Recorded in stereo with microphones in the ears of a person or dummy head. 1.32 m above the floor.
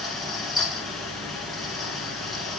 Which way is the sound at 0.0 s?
Centre (ahead or behind).